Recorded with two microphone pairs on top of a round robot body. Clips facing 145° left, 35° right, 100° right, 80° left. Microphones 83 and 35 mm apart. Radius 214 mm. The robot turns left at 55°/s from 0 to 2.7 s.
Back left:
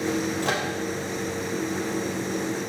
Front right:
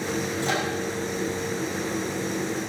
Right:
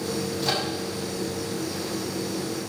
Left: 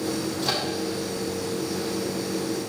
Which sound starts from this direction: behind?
A microwave, at 0.4 s.